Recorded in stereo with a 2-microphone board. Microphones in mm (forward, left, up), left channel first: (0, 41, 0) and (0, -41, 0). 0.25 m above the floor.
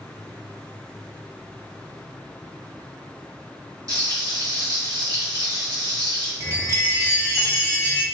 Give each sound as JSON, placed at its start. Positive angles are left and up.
{"t": 3.9, "sound": "frying", "side_deg": -45, "distance_m": 1.4}
{"t": 6.4, "sound": "a chime", "side_deg": -35, "distance_m": 0.5}